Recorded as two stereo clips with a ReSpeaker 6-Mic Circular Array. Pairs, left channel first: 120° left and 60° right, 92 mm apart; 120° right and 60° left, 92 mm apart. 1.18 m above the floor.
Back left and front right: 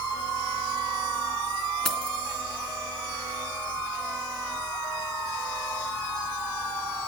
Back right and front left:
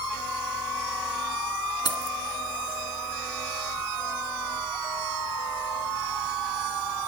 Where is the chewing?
I don't hear chewing.